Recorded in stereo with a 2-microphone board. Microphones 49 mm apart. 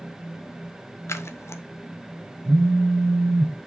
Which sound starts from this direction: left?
Scissors, at 1.1 s.